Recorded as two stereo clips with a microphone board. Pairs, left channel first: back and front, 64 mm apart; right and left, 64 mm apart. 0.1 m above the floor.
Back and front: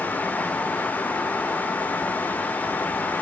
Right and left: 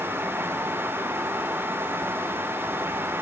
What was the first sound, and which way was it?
Only background noise.